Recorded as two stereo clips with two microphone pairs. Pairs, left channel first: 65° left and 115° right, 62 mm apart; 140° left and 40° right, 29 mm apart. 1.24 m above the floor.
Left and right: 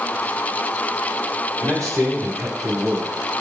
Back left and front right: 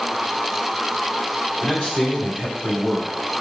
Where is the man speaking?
145° right, 4.5 m; by 3.1 s 170° right, 5.5 m.